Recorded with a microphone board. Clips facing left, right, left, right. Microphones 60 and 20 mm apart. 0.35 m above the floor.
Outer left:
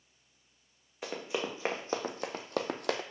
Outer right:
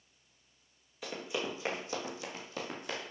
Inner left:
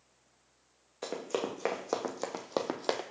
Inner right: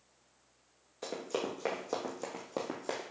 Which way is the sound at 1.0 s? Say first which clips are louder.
Outer left 2 dB, inner left 2 dB; 25° left (ahead or behind).